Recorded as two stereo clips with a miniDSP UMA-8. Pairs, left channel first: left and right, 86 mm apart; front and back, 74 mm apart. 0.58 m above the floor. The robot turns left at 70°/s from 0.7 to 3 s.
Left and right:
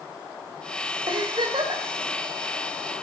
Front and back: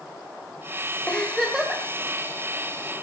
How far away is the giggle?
About 3 m.